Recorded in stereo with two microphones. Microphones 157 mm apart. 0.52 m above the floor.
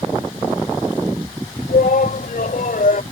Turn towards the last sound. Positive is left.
turn(degrees=60)  # may be behind; listen again after turning